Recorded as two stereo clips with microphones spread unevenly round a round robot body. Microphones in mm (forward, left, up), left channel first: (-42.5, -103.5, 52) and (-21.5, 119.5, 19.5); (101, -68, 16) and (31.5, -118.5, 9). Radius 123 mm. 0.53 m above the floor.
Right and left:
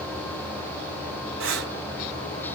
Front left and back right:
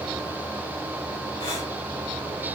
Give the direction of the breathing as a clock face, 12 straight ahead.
9 o'clock.